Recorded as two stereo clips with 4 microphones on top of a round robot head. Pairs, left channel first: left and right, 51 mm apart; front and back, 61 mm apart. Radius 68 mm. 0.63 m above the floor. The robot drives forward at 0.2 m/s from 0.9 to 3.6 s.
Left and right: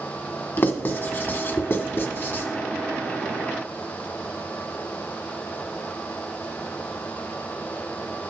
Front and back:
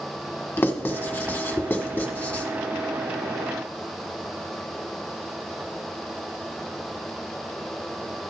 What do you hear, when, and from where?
0.6 s writing: 55° left, 2 m; by 2.4 s 65° left, 2 m